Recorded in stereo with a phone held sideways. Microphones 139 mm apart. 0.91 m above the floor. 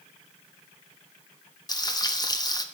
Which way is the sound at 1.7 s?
30° left (ahead or behind).